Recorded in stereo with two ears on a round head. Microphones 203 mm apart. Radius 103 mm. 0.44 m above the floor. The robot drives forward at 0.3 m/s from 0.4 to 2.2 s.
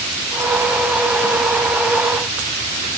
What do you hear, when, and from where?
Only background noise.